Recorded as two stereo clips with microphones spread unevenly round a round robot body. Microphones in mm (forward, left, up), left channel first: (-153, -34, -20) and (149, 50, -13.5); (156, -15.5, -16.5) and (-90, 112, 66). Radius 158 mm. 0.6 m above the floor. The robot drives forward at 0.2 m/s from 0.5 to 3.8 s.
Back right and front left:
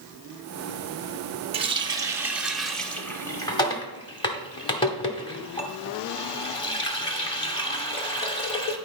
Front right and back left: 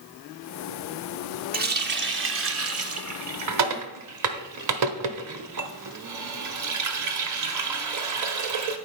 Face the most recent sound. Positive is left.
turn(degrees=120)